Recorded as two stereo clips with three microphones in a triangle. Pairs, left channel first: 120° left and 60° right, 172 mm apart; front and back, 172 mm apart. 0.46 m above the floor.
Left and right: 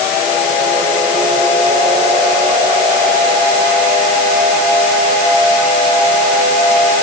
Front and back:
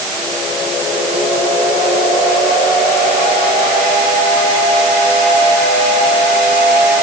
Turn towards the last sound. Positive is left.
No sound to turn to.